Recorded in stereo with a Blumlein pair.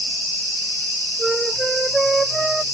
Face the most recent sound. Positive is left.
turn(degrees=-10)